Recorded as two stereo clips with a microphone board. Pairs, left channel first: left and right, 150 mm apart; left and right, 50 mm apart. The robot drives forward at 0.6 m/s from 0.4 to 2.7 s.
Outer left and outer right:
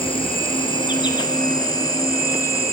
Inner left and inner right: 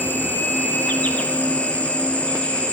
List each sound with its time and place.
0.0 s an insect: 35° left (ahead or behind), 1.6 m; by 2.7 s 20° left (ahead or behind), 3 m